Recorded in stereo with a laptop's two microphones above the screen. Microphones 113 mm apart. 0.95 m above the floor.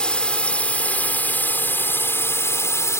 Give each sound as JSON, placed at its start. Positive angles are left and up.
{"t": 0.0, "sound": "a drone", "side_deg": 10}